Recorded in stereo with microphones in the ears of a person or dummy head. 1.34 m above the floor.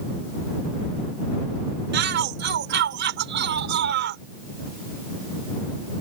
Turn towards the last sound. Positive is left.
turn(degrees=-70)  # may be behind; listen again after turning